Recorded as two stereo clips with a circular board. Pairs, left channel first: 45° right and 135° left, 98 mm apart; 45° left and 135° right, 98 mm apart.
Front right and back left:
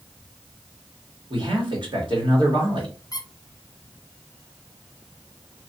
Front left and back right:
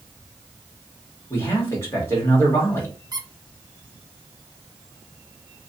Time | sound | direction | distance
1.3 | a man speaking | 110° left | 2.0 m
3.1 | a squeak | 90° right | 0.6 m